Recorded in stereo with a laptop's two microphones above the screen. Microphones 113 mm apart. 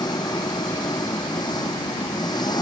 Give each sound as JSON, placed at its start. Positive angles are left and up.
{"t": 0.0, "sound": "an engine running", "side_deg": 35}